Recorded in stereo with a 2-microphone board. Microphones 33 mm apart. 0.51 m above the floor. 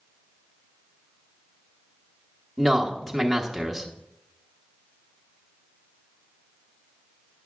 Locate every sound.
2.6 s a man speaking: centre (ahead or behind), 1.0 m